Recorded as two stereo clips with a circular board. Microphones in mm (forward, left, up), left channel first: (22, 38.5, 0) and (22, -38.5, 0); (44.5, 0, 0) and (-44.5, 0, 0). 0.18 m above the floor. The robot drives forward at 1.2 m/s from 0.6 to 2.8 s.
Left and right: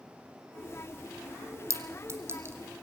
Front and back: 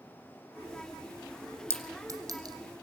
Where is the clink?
125° right, 2.0 m; by 2.5 s 145° right, 2.5 m.